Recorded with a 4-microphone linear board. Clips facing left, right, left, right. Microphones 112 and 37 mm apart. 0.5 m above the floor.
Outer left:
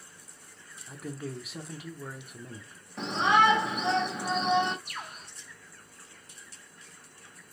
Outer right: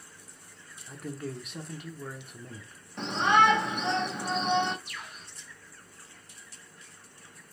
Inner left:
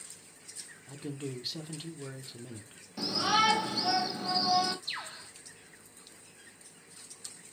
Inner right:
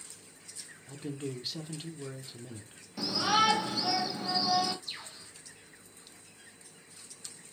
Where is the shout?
5° left (ahead or behind), 1.0 m.